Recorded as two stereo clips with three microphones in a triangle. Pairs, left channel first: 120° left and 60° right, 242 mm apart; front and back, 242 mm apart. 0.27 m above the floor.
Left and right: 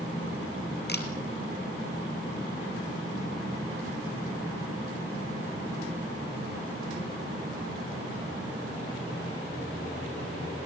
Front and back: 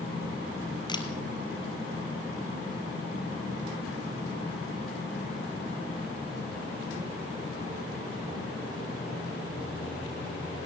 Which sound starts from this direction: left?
A camera shutter, at 0.9 s.